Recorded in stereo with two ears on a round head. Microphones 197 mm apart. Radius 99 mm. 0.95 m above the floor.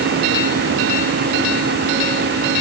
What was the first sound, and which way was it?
Only background noise.